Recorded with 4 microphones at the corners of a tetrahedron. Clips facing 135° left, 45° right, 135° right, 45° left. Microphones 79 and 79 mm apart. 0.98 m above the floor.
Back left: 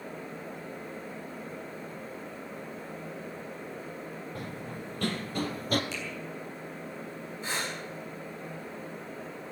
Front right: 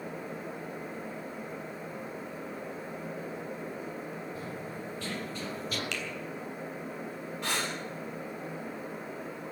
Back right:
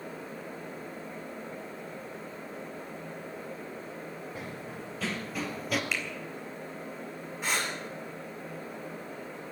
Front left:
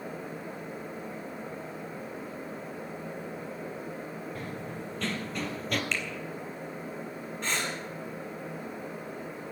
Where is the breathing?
55° right, 8.5 m.